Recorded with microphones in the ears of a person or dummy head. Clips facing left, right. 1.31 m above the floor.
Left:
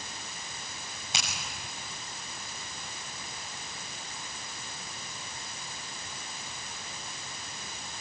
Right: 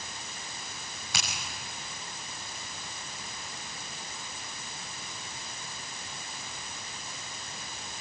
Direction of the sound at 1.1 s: 20° left (ahead or behind).